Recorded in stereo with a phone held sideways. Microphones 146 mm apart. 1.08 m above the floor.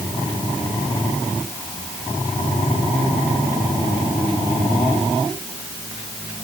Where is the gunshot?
I don't hear a gunshot.